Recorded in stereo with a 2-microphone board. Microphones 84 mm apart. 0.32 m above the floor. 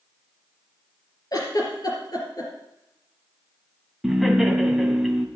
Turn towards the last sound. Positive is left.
turn(degrees=0)  # may be behind; listen again after turning